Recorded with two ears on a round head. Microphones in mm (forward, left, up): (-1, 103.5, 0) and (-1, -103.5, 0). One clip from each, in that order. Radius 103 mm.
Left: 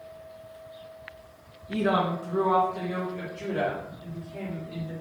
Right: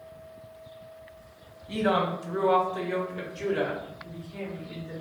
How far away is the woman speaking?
About 1.0 m.